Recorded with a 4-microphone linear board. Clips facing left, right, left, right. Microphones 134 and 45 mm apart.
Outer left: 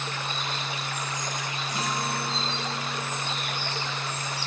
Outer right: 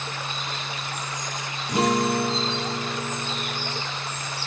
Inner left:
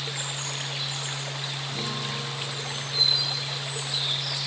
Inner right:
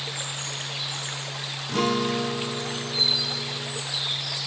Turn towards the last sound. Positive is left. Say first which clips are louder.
# outer right 10 dB, inner right 12 dB
turn(degrees=-65)  # may be behind; listen again after turning